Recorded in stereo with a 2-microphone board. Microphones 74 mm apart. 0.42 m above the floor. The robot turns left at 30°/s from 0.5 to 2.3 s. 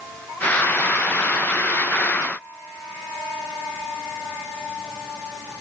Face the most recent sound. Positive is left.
No sound to turn to.